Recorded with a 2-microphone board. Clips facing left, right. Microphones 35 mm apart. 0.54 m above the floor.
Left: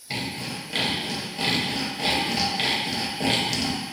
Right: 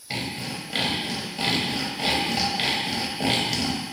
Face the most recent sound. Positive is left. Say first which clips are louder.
# even
turn(degrees=-5)  # may be behind; listen again after turning